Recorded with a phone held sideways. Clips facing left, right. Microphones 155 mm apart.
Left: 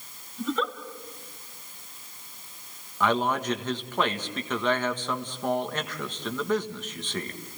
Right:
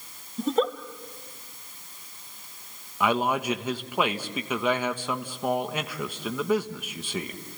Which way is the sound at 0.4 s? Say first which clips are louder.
Right 5 dB; 45° right (ahead or behind).